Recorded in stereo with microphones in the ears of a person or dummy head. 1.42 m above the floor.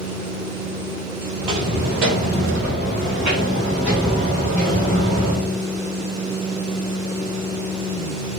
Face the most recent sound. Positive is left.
turn(degrees=10)  # may be behind; listen again after turning